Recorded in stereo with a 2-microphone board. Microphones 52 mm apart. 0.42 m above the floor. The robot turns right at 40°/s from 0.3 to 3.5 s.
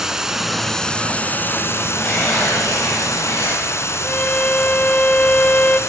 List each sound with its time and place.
0.0 s running water: 5° right, 2 m; by 5.9 s 120° left, 2 m
2.0 s tearing paper: 30° left, 9 m; by 3.6 s 90° left, 9 m
4.0 s a violin: 30° left (ahead or behind), 0.8 m